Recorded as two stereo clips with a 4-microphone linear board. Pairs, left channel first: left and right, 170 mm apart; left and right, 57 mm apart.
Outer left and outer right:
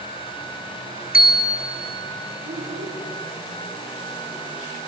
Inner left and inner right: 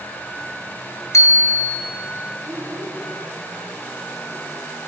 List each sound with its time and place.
1.1 s a bicycle bell: 60° left (ahead or behind), 2 m
2.5 s a child speaking: 75° right (ahead or behind), 9 m